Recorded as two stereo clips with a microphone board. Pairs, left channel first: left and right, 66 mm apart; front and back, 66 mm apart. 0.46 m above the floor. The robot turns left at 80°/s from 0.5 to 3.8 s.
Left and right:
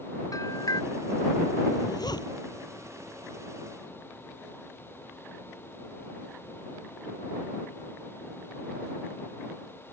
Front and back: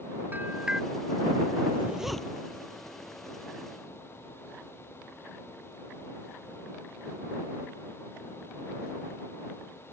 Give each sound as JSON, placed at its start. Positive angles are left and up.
{"t": 0.3, "sound": "a bell", "azimuth_deg": 120}
{"t": 1.7, "sound": "a zipper", "azimuth_deg": 125}